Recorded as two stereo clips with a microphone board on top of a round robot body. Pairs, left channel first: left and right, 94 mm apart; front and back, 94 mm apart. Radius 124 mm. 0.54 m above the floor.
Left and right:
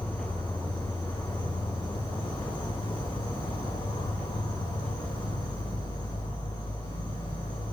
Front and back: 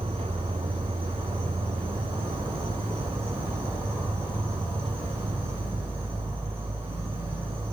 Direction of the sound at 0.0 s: 120° left.